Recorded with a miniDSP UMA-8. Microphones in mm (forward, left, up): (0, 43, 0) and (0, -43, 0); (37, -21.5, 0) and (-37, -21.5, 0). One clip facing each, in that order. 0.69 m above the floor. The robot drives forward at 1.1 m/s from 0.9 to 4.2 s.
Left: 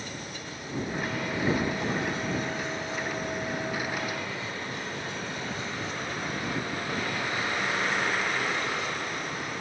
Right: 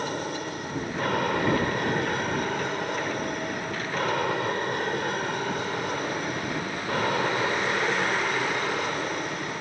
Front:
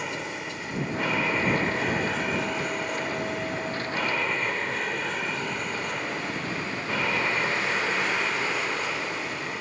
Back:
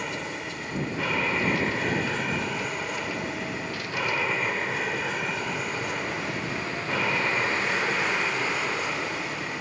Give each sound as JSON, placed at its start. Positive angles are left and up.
{"t": 0.0, "sound": "an aircraft", "azimuth_deg": -90}